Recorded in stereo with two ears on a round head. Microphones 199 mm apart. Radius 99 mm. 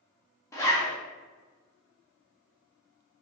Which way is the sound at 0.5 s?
15° left (ahead or behind).